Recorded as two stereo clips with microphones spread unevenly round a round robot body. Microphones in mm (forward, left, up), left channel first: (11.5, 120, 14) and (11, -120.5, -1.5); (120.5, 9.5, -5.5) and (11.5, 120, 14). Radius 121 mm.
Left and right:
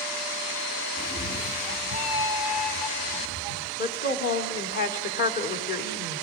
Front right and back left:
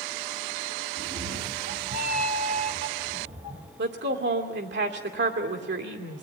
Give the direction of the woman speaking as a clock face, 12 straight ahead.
7 o'clock.